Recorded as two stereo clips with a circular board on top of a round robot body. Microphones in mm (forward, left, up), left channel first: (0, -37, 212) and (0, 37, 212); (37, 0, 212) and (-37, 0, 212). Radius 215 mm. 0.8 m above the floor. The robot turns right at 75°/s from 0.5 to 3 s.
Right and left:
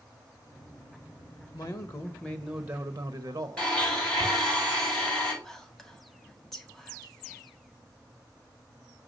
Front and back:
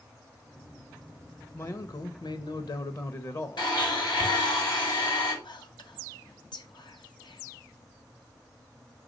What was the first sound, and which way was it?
A man speaking, 65° right.